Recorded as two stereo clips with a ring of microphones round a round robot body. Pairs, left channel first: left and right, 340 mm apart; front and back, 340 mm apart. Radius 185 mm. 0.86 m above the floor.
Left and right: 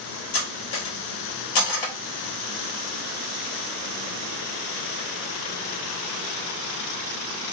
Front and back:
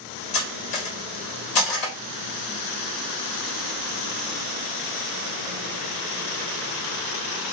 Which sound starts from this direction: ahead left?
Cutlery clinking, at 0.3 s.